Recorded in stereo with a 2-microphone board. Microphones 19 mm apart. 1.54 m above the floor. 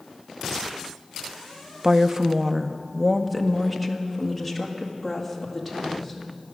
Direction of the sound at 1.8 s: 35° right (ahead or behind).